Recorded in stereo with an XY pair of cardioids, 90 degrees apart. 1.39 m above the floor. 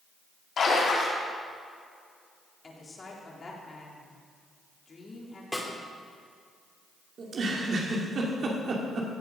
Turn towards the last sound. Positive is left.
turn(degrees=-60)